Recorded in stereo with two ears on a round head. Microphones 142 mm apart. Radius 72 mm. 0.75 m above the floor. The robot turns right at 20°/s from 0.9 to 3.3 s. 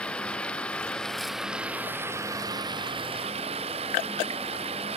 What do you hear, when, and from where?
0.0 s running water: 175° left; by 5.0 s 140° right